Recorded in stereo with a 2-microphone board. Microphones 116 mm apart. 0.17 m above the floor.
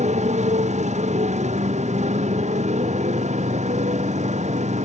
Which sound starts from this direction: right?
A motorcycle, at 0.0 s.